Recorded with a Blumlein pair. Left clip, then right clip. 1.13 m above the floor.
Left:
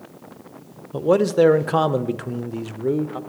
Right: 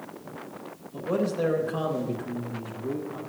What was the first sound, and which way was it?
A man speaking, 55° left.